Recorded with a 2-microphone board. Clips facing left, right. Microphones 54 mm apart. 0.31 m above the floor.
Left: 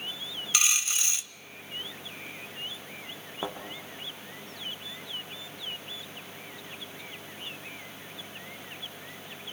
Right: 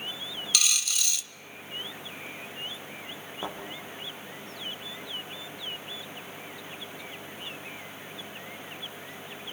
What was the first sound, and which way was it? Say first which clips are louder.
A dropped coin: left 1 dB; 30° left (ahead or behind).